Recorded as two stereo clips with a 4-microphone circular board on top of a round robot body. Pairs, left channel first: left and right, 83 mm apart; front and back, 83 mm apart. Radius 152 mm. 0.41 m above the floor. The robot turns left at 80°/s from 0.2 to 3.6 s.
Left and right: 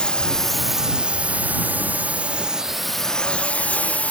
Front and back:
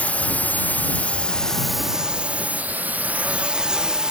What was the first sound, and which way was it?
A drone, 30° left.